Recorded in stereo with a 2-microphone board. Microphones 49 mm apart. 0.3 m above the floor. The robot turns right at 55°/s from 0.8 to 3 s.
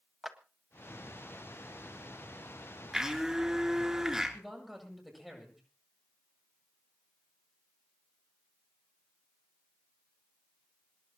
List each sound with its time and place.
0.2 s a clap: 5° right (ahead or behind), 1.7 m
2.9 s a blender: 5° right (ahead or behind), 4 m; by 4.4 s 10° right (ahead or behind), 4 m
4.3 s a man speaking: centre (ahead or behind), 9 m